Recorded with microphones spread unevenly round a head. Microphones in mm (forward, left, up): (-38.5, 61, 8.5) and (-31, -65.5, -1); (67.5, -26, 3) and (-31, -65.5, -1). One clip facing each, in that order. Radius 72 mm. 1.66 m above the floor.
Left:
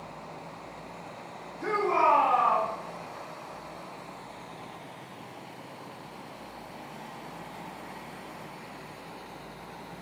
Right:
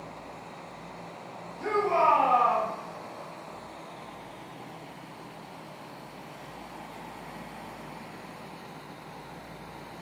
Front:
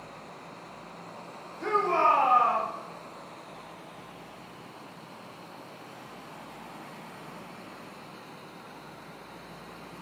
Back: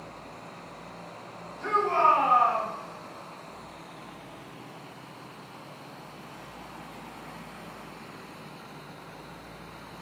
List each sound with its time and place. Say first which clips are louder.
1.6 s a shout: right 1 dB, back 1 dB; 20° right, 1.8 m